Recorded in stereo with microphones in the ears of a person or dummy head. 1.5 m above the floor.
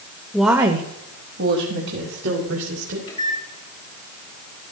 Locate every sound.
0.3 s a woman speaking: 5° left (ahead or behind), 0.7 m; by 3.0 s 75° right (ahead or behind), 3 m
3.1 s a microwave: 30° left (ahead or behind), 4.5 m